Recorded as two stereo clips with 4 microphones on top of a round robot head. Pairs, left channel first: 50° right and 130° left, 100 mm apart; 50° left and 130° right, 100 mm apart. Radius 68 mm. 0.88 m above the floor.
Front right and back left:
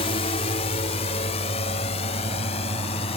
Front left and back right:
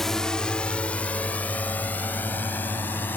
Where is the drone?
35° right; by 3.2 s 20° right.